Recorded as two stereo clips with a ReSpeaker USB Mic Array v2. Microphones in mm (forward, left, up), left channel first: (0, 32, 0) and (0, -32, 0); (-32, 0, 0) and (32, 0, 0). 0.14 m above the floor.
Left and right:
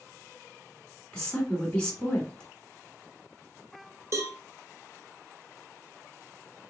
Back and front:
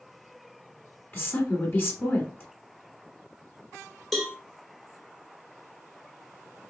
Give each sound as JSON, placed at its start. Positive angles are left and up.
{"t": 1.1, "sound": "a woman speaking", "azimuth_deg": 155, "distance_m": 1.5}
{"t": 4.1, "sound": "a cowbell", "azimuth_deg": -85, "distance_m": 1.0}